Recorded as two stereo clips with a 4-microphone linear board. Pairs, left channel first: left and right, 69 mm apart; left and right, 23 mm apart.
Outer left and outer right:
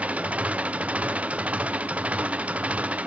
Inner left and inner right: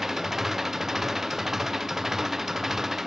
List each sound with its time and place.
0.0 s an engine running: 20° right (ahead or behind)